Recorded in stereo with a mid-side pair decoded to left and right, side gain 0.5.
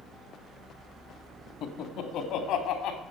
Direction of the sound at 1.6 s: 70° left.